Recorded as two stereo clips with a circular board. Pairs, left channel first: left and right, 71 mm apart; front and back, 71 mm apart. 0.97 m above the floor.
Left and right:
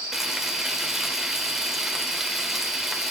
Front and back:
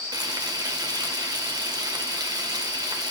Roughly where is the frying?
Behind.